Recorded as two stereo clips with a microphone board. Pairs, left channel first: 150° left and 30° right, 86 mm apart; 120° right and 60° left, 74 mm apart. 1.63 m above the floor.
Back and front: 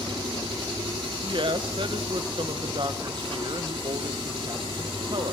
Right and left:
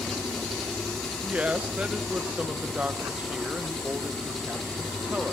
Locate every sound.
0.0 s an engine running: 35° right, 4 m
1.2 s a woman speaking: 10° right, 1.5 m